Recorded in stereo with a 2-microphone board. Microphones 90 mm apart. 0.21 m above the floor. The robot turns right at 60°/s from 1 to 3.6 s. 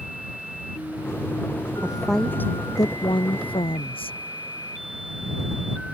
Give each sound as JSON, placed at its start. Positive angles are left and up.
{"t": 1.8, "sound": "a woman speaking", "azimuth_deg": -15}